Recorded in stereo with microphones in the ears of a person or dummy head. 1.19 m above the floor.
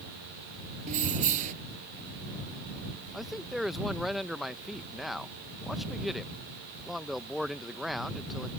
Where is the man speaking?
Centre (ahead or behind).